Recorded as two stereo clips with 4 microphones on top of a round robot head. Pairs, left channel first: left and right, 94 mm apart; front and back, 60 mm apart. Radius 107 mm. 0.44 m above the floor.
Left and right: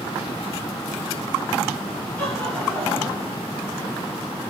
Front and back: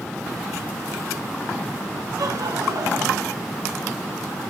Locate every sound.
2.2 s laughter: 165° left, 5.5 m; by 3.5 s 170° left, 4.5 m